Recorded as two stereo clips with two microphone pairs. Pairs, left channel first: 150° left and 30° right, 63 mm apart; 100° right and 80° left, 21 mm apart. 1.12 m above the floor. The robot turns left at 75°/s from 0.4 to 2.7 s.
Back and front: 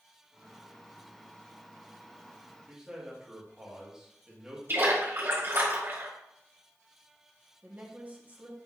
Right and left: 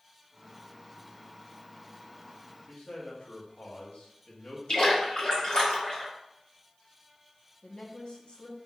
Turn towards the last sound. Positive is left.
turn(degrees=-85)